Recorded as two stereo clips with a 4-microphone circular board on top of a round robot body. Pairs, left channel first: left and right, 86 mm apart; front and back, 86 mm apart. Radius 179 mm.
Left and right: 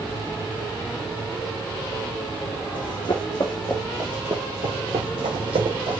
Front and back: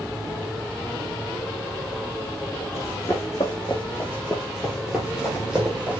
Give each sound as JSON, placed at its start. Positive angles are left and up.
{"t": 2.7, "sound": "running footsteps", "azimuth_deg": 65, "distance_m": 0.8}